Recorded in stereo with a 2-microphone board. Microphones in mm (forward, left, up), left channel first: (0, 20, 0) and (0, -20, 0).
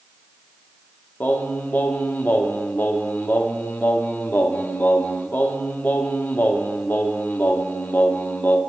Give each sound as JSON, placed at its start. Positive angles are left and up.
{"t": 1.2, "sound": "singing", "side_deg": 55, "distance_m": 0.9}